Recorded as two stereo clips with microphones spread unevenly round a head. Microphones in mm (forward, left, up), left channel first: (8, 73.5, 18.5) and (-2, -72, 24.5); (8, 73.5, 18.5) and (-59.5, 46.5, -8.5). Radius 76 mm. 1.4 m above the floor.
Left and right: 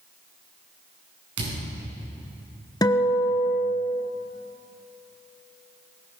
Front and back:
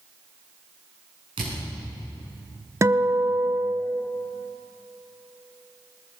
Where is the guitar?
155° left, 0.9 m.